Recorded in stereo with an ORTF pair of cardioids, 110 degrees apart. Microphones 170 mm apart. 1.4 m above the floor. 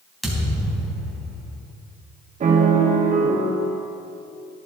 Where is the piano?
40° right, 1.8 m.